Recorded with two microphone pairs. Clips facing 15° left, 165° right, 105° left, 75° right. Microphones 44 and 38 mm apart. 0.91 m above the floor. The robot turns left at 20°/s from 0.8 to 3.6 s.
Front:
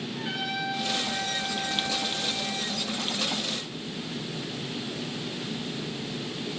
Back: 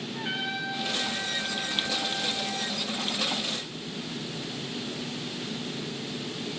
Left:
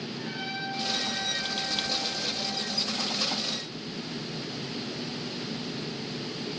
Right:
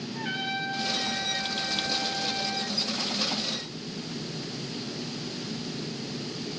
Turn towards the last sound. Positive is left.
turn(degrees=-150)